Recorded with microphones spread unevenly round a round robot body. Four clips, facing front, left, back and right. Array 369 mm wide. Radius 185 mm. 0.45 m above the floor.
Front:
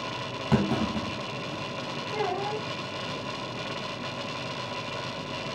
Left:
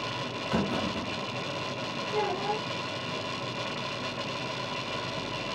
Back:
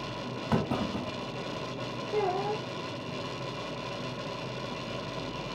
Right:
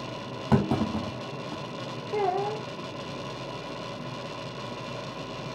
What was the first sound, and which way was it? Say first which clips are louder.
A clunk: right 5 dB, front 4 dB; 75° right.